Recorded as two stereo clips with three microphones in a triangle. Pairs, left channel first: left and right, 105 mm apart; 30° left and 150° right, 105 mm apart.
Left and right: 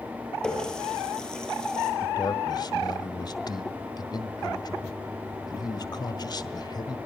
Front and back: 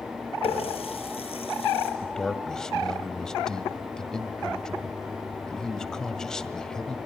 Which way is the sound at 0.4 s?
10° left.